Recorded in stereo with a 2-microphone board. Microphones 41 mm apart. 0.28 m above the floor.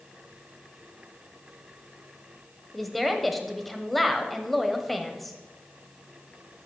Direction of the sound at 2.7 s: Centre (ahead or behind).